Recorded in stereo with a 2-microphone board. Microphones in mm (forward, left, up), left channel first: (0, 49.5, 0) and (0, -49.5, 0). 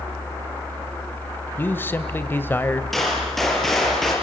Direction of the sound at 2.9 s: Centre (ahead or behind).